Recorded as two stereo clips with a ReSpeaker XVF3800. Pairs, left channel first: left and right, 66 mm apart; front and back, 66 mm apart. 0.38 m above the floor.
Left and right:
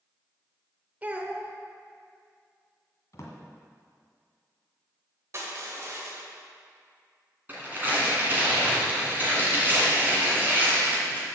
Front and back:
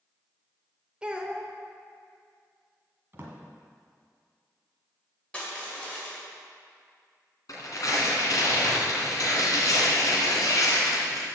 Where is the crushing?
65° right, 1.9 m.